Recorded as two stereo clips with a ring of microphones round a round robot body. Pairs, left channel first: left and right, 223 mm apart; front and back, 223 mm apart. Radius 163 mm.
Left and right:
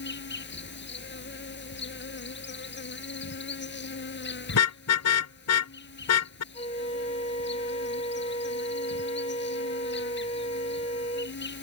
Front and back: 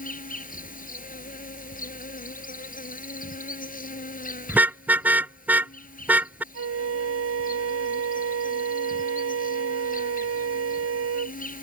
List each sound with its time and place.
0.0 s an insect: 50° left
4.5 s a car horn: 95° left
6.5 s a flute: 165° left